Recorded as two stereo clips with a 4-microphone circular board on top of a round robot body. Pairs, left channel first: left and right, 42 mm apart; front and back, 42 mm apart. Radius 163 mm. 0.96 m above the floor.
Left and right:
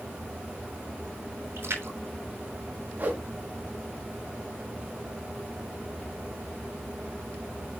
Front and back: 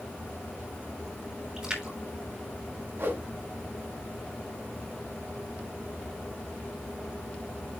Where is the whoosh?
145° right, 2.5 m.